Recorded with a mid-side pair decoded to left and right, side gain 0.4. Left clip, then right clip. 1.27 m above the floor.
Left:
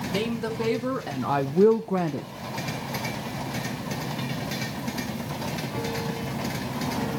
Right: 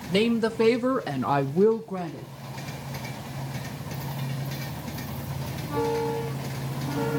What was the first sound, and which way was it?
A woman speaking, 50° right.